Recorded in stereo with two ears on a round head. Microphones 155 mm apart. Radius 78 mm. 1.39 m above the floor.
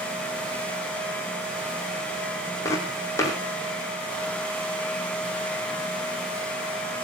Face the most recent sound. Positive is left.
turn(degrees=15)  # may be behind; listen again after turning